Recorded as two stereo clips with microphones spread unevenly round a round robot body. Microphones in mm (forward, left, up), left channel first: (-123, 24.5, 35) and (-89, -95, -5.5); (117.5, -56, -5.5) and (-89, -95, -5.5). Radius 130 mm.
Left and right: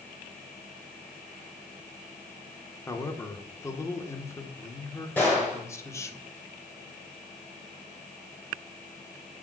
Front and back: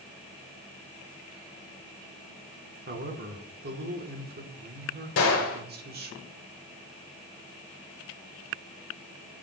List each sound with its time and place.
2.9 s a man speaking: 175° right, 1.4 m
5.2 s a gunshot: 15° left, 1.4 m